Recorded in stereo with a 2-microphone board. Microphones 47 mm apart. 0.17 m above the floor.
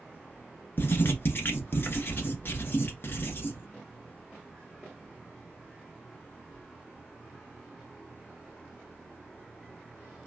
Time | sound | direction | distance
0.8 | writing | 55° left (ahead or behind) | 1.1 m